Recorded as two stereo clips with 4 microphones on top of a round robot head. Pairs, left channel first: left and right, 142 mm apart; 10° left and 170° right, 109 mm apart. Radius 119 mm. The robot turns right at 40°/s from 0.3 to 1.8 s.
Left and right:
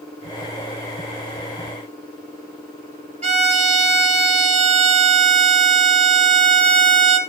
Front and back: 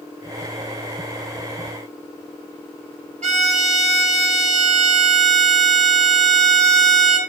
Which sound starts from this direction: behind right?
A violin, at 3.2 s.